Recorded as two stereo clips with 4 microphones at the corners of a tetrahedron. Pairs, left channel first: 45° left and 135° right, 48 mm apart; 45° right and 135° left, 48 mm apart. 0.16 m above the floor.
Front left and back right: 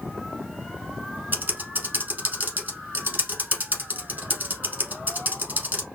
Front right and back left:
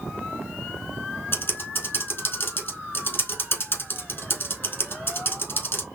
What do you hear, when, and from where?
1.3 s typing on a keyboard: 80° right, 1.6 m